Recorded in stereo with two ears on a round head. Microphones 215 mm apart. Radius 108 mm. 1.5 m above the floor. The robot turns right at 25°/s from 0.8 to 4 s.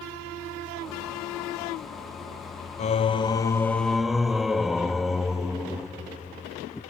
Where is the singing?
150° left, 0.6 m; by 6.8 s straight behind, 0.6 m.